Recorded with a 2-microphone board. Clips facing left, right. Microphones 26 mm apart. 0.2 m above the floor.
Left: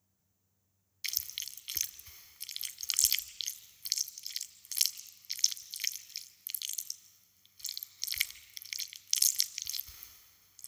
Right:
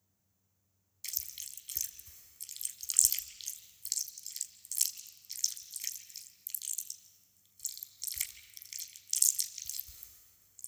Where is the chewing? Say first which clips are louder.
Left 6 dB; 45° left (ahead or behind), 0.7 m.